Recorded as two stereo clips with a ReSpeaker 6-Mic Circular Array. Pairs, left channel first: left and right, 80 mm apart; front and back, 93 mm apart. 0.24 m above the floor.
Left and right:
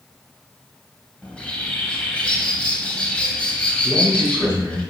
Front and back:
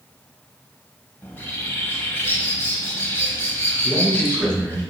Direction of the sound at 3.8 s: 85° right.